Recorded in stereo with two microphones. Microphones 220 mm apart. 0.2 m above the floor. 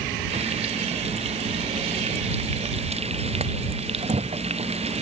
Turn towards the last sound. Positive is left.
turn(degrees=-30)  # may be behind; listen again after turning